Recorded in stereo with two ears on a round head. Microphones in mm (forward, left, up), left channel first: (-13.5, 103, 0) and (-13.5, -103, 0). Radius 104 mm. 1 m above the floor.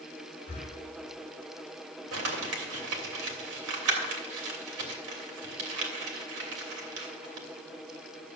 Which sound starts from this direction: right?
Crumpling, at 2.1 s.